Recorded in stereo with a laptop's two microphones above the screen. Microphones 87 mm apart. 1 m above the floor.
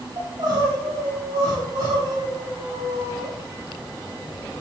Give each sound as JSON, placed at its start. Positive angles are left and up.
{"t": 0.2, "sound": "crying", "side_deg": -60, "distance_m": 6.0}